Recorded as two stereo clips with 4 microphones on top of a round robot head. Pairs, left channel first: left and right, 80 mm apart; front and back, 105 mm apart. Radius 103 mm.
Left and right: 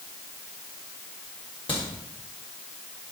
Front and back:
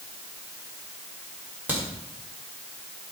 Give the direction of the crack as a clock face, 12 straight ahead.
8 o'clock.